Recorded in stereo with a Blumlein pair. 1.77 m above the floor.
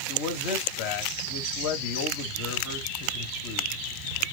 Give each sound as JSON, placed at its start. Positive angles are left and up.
{"t": 0.1, "sound": "a man speaking", "azimuth_deg": 45, "distance_m": 1.7}